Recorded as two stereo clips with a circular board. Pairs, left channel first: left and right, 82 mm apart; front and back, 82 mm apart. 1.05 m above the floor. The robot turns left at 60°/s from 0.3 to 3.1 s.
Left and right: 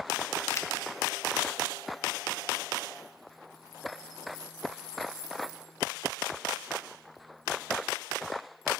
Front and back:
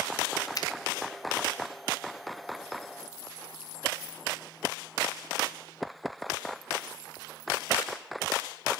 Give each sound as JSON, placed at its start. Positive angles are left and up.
{"t": 0.6, "sound": "a finger snap", "azimuth_deg": 40, "distance_m": 1.1}